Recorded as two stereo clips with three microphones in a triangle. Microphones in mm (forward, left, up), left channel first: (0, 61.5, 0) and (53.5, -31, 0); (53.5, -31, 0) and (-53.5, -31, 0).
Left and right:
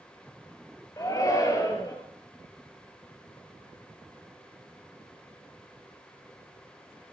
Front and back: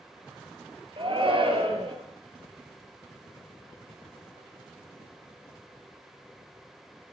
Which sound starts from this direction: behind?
A shout, at 1.0 s.